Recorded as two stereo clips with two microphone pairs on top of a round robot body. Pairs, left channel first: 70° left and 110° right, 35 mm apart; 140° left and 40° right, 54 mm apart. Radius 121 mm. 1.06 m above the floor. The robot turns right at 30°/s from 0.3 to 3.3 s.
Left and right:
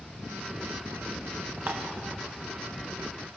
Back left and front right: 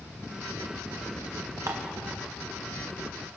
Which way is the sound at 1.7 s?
80° right.